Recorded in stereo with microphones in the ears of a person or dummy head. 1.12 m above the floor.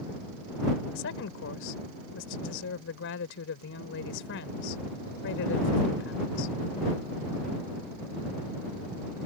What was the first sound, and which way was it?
A woman speaking, 75° left (ahead or behind).